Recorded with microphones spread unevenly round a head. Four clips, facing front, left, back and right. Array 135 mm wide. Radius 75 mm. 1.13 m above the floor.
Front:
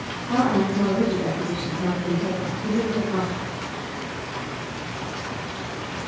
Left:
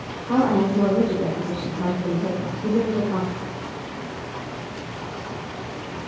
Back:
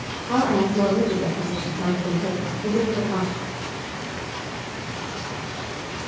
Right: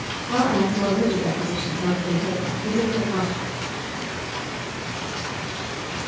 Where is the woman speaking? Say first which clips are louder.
Left 2 dB, back 1 dB; 115° left, 4.5 m.